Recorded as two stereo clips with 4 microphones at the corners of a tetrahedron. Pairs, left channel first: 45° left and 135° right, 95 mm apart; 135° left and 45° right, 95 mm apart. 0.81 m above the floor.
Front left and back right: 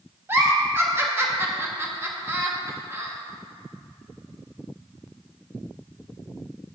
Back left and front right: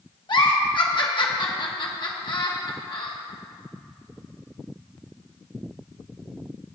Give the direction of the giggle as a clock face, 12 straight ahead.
7 o'clock.